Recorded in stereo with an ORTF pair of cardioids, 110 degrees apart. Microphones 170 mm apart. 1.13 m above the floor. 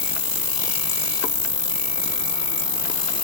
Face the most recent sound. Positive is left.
turn(degrees=30)